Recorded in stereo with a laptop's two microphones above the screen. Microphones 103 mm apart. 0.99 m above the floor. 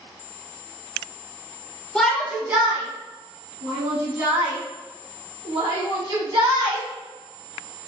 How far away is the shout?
About 0.7 m.